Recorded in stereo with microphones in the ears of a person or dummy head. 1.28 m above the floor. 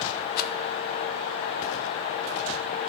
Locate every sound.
0.4 s a rattle: 50° left (ahead or behind), 0.8 m